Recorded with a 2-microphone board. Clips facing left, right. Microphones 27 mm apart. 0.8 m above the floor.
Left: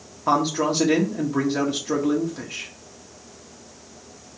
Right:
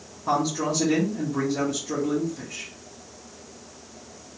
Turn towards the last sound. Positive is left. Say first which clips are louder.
# left 4 dB
turn(degrees=40)  # may be behind; listen again after turning